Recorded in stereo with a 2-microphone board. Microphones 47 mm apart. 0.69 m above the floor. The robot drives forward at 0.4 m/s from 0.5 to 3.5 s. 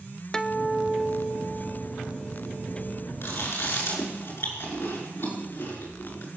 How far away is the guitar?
About 0.7 m.